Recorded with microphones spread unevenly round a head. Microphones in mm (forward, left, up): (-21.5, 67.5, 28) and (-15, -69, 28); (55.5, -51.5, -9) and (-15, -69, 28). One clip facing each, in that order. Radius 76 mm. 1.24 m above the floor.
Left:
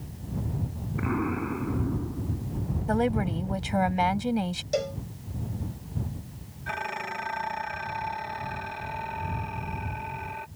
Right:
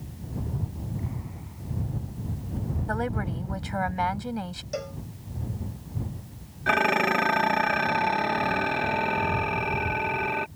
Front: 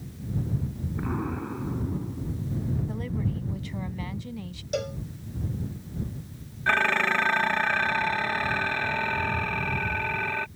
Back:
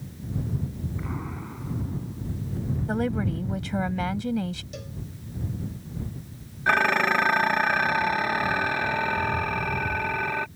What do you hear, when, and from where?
1.0 s an explosion: 75° left
2.9 s a woman speaking: 160° left
4.7 s a cowbell: 30° left
6.7 s dishes clattering: 105° right